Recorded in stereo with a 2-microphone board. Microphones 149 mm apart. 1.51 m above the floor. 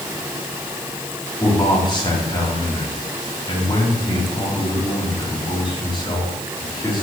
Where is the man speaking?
35° left (ahead or behind), 4 m.